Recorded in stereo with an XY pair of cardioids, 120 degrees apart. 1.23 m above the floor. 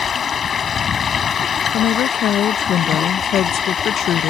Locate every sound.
0.0 s running water: 40° left
1.7 s a woman speaking: 65° left